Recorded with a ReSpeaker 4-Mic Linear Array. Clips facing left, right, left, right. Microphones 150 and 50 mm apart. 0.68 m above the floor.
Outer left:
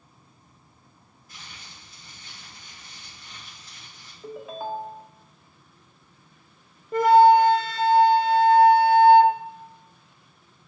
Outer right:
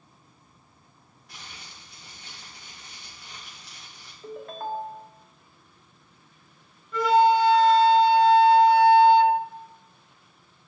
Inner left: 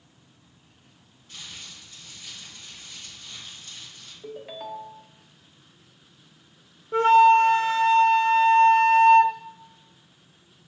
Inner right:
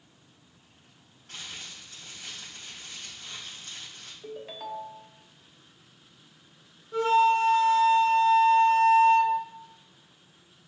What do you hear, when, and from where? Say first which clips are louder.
1.3 s crumpling: outer right 1 dB, inner right 1 dB; 80° right, 3.5 m
4.2 s a ringtone: outer left 1 dB, inner left 2 dB; 5° left (ahead or behind), 0.6 m
6.9 s a flute: outer left 5 dB, inner left 6 dB; 50° left (ahead or behind), 0.5 m